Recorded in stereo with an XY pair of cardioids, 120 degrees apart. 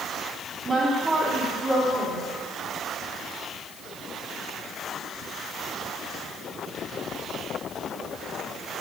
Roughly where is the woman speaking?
Ahead right.